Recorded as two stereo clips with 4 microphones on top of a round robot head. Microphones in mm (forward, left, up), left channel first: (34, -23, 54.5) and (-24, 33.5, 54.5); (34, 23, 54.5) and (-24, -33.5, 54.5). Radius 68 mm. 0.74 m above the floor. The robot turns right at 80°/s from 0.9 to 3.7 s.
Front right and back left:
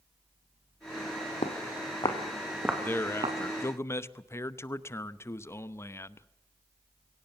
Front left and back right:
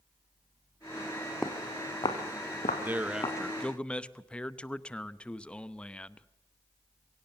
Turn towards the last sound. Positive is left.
turn(degrees=-25)